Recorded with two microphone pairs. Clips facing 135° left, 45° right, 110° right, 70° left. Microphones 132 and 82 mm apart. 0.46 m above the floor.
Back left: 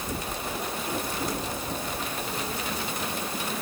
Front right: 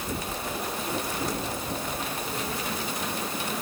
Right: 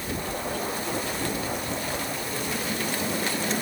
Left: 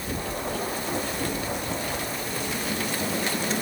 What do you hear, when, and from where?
Only background noise.